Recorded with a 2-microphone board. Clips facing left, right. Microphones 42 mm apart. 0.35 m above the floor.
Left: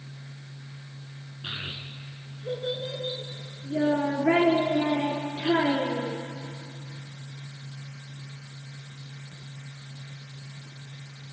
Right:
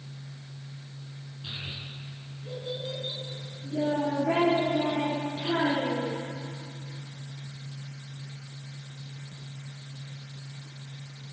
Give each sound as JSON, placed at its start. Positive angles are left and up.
{"t": 1.4, "sound": "a child speaking", "side_deg": 45, "distance_m": 3.0}